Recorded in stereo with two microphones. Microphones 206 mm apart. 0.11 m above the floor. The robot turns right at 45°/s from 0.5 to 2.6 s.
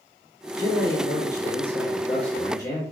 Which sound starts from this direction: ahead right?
A man speaking, at 0.6 s.